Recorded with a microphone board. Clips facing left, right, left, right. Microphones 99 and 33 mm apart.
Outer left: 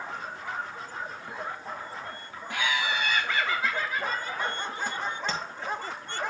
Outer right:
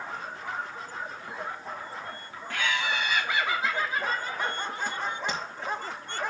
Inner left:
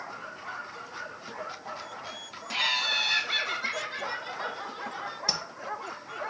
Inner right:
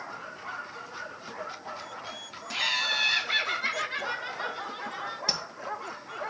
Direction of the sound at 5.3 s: 15° right (ahead or behind).